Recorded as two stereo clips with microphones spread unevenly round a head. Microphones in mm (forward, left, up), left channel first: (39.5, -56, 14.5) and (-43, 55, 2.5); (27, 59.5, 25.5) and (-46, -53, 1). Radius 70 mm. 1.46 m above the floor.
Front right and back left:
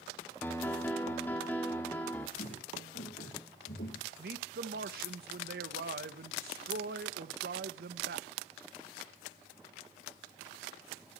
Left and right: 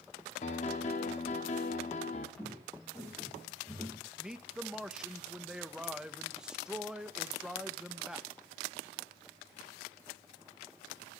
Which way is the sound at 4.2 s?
150° left.